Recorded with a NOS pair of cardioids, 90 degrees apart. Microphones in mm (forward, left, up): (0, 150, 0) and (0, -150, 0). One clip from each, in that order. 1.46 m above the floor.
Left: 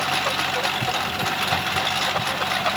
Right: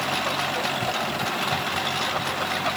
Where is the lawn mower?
30° left.